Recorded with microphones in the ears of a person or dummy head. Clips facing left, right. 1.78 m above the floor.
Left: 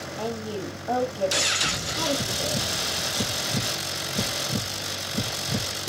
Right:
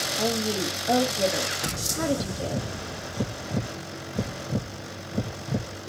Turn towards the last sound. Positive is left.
turn(degrees=-35)  # may be behind; listen again after turning